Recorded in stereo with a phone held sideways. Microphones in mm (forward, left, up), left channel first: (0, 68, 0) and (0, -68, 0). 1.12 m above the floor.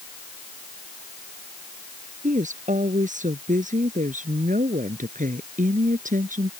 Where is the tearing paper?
No tearing paper in this recording.